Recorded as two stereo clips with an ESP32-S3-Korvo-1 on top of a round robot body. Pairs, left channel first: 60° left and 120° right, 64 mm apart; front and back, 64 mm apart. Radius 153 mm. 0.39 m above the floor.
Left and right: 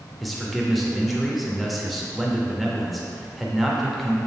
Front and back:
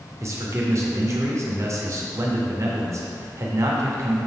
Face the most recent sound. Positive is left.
turn(degrees=150)